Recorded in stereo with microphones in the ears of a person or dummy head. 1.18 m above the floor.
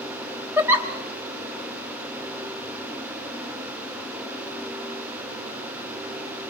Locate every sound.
0.6 s a giggle: 10° right (ahead or behind), 0.9 m